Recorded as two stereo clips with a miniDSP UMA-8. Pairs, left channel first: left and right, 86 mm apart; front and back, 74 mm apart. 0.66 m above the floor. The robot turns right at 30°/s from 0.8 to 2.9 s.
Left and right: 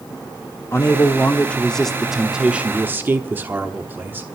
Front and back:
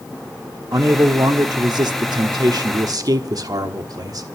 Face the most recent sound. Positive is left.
turn(degrees=-155)